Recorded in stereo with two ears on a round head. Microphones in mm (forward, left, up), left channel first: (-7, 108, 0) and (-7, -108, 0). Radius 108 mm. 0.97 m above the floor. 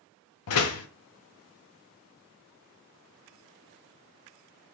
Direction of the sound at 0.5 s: 70° left (ahead or behind).